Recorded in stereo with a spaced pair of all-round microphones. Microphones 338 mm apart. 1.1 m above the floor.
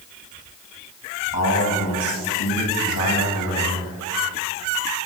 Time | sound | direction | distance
1.3 | a man speaking | 85° left | 8 m